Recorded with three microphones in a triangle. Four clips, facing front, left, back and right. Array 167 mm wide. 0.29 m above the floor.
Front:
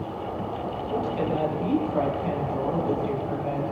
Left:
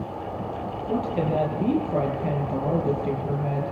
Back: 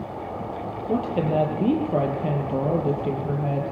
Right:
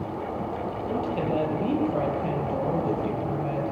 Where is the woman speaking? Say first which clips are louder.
Left 3 dB, back 4 dB; 160° left, 8.5 m.